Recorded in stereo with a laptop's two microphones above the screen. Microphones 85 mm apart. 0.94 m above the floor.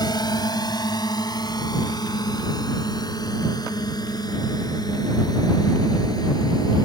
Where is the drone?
55° left (ahead or behind); by 6.9 s 50° left (ahead or behind).